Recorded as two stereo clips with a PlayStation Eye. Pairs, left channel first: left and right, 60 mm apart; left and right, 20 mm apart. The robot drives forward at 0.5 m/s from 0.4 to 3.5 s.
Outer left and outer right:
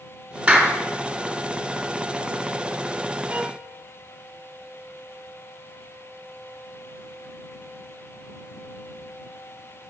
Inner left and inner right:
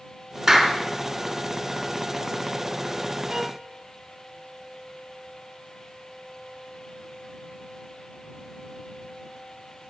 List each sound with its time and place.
0.5 s a clap: 25° right (ahead or behind), 2.5 m
3.3 s a violin: 30° right (ahead or behind), 2.5 m